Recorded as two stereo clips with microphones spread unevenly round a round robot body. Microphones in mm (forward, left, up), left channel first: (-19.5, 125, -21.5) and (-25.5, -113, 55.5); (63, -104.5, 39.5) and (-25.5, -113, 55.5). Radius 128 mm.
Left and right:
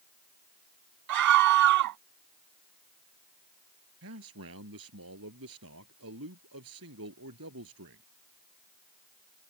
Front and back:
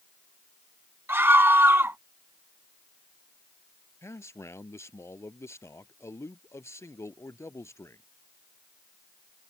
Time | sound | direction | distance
1.1 | a scream | 110° right | ?
4.0 | a man speaking | 55° right | ?